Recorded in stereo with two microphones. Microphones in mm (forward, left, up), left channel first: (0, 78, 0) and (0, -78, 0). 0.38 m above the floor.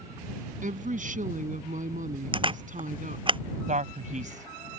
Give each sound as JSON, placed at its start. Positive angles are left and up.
{"t": 0.6, "sound": "a woman speaking", "side_deg": -60}
{"t": 2.3, "sound": "a camera shutter", "side_deg": -35}
{"t": 3.7, "sound": "a man speaking", "side_deg": -55}